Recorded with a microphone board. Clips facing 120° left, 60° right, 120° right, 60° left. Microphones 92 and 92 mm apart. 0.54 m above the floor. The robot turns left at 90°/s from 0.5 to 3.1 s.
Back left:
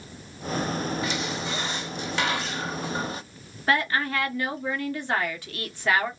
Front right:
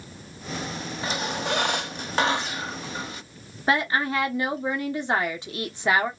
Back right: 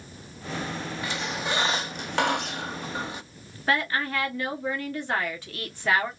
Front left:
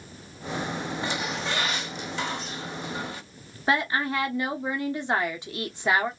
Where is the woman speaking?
Straight ahead, 0.8 m.